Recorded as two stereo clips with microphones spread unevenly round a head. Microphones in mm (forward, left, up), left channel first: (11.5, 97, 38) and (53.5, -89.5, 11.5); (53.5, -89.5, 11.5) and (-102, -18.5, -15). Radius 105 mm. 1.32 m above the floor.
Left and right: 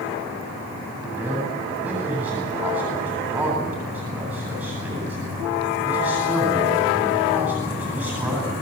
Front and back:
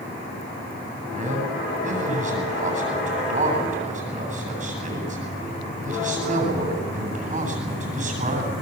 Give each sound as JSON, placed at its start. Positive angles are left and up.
{"t": 1.1, "sound": "a man speaking", "azimuth_deg": -160, "distance_m": 8.5}